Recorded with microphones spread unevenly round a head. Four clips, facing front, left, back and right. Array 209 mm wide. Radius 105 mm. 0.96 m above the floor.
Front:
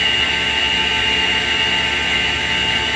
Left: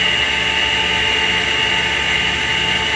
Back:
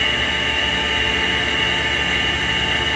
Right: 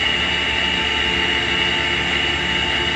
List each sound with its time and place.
0.0 s a machine running: 160° left, 2.0 m